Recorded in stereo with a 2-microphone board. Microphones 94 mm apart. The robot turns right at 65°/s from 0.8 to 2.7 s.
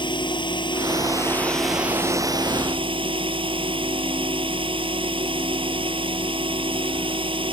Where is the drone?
125° left; by 7.5 s 110° right.